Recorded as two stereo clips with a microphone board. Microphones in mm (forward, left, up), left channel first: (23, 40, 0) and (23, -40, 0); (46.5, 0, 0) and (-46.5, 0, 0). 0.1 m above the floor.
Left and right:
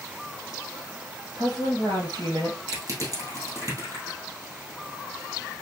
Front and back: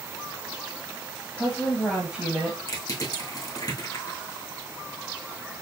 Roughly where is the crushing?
Ahead right.